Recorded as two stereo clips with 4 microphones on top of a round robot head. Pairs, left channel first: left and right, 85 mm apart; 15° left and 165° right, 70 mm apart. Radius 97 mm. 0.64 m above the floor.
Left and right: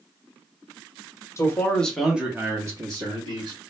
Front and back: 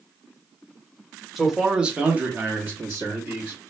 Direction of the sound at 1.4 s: 105° left.